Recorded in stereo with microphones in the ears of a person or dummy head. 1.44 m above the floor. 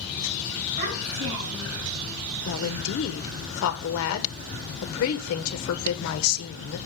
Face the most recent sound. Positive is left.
turn(degrees=65)  # may be behind; listen again after turning